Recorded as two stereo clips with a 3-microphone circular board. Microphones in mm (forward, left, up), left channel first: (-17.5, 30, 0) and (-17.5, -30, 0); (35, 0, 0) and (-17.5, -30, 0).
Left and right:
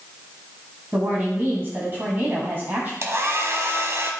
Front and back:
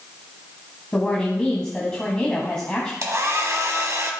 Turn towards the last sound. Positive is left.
turn(degrees=-125)